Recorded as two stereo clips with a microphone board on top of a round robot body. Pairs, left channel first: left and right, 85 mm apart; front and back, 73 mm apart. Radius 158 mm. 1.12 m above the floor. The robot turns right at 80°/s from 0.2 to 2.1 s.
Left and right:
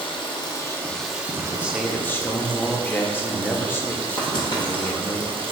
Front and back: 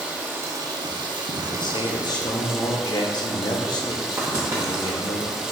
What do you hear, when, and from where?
0.0 s running water: 110° left, 0.8 m; by 5.5 s 100° right, 0.8 m
1.5 s a man speaking: 25° right, 0.7 m; by 5.2 s 25° left, 0.7 m
4.2 s writing: 130° left, 0.8 m